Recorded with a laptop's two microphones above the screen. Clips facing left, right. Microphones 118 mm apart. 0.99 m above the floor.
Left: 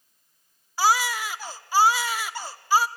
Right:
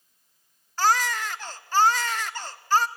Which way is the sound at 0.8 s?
10° left (ahead or behind).